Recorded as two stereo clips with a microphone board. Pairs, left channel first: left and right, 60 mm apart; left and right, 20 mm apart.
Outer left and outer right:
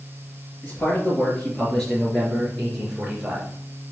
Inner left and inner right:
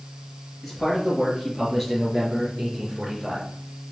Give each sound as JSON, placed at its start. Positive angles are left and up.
{"t": 0.6, "sound": "a man speaking", "side_deg": 25, "distance_m": 4.0}